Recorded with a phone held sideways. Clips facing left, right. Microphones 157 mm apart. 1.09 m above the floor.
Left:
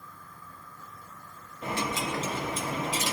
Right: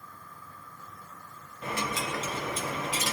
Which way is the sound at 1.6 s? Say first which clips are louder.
Left 2 dB; 25° left (ahead or behind).